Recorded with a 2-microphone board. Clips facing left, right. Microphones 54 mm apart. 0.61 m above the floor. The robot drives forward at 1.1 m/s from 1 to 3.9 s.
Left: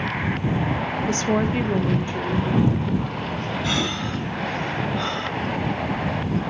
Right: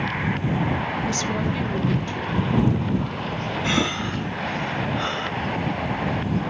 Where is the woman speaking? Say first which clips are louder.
Left 3 dB; 30° left (ahead or behind), 0.8 m; by 4.5 s 10° left (ahead or behind), 3 m.